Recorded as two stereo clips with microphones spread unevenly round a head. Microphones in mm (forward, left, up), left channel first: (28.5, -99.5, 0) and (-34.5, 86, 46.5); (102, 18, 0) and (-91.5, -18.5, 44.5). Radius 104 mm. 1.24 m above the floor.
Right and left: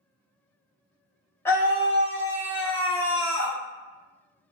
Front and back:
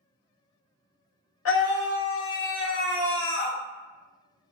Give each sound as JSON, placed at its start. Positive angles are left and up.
{"t": 1.4, "sound": "a scream", "azimuth_deg": 10, "distance_m": 1.0}